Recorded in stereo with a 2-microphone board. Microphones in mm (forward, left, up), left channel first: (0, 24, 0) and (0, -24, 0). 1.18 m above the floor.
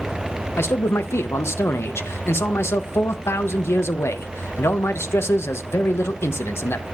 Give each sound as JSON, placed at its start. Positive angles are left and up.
{"t": 0.6, "sound": "a man speaking", "side_deg": 65, "distance_m": 0.6}